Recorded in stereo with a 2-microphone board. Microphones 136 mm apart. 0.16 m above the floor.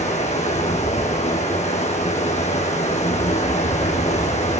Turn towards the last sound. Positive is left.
turn(degrees=55)  # may be behind; listen again after turning